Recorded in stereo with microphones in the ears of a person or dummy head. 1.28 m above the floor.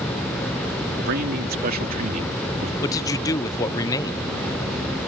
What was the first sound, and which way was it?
A man speaking, 55° right (ahead or behind).